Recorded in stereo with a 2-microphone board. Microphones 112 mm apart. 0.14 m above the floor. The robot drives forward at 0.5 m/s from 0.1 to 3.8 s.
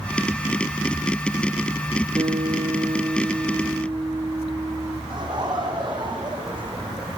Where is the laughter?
40° right (ahead or behind), 6 m.